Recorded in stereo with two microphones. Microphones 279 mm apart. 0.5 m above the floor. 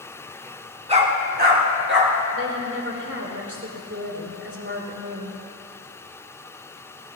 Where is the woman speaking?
45° right (ahead or behind), 3 m.